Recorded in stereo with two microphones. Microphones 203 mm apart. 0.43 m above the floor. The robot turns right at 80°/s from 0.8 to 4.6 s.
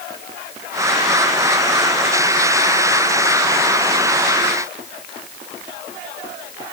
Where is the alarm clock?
I don't hear an alarm clock.